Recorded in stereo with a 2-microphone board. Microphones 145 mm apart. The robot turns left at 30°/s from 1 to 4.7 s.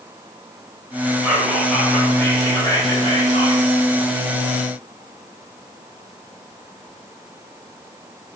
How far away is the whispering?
About 1.3 m.